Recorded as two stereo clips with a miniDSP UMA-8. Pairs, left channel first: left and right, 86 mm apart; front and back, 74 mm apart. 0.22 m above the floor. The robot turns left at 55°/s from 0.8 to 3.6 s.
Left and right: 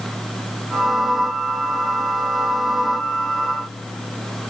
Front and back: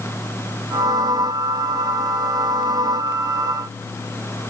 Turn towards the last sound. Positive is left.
No sound to turn to.